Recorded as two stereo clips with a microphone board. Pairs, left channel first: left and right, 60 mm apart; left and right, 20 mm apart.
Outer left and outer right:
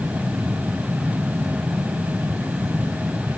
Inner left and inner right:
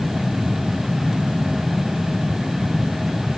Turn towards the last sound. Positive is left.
No sound to turn to.